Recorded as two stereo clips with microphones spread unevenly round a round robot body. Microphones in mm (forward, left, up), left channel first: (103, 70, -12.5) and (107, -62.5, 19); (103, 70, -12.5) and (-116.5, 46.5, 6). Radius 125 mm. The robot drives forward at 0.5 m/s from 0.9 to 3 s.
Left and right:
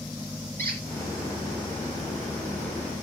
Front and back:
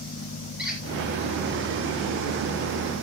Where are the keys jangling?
I don't hear keys jangling.